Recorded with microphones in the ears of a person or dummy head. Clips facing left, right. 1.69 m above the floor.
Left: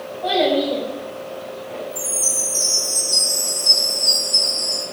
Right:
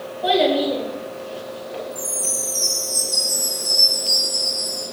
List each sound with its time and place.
0.2 s a child speaking: 10° right (ahead or behind), 1.2 m
1.9 s a chime: 10° left (ahead or behind), 1.2 m